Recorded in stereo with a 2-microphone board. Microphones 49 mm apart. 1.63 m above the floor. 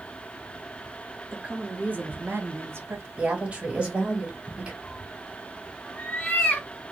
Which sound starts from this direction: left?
A cat meowing, at 4.8 s.